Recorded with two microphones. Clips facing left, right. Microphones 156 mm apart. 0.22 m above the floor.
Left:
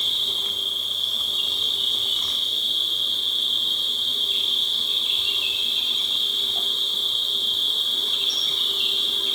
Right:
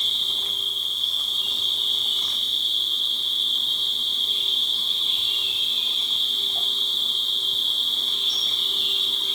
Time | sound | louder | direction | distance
0.0 | an insect | left 2 dB | 85° left | 1.1 m